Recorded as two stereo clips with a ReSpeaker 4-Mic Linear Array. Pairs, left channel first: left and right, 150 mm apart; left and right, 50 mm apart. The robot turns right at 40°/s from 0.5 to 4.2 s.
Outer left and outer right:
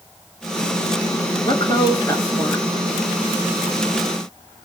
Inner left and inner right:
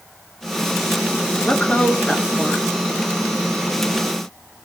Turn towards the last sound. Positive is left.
turn(degrees=-140)